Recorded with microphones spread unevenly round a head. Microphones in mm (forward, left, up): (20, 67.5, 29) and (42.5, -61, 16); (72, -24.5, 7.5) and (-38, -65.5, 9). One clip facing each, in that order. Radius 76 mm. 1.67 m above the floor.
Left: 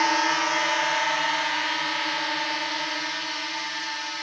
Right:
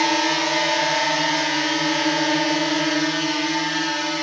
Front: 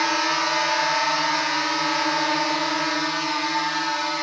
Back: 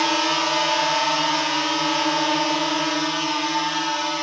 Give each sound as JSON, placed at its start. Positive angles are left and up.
{"t": 0.0, "sound": "a drone", "azimuth_deg": -100}